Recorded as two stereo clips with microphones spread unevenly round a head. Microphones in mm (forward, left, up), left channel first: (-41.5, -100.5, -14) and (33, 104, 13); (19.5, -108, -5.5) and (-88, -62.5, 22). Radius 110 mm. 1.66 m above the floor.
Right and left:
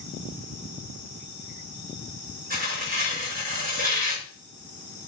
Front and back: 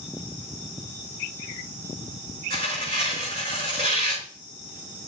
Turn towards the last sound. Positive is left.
turn(degrees=120)